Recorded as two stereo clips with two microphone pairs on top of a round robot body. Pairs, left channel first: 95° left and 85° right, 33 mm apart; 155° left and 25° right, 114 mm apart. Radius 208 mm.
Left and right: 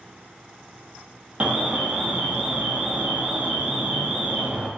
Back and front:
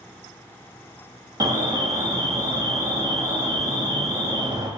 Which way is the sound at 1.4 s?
45° right.